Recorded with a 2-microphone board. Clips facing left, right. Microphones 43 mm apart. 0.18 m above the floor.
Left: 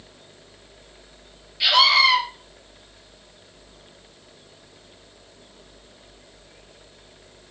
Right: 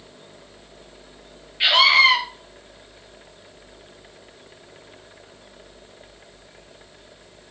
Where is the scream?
30° right (ahead or behind), 3 m.